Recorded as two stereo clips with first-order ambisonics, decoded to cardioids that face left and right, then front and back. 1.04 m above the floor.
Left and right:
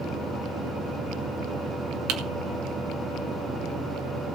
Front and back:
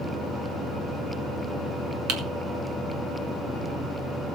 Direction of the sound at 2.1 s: 130° right.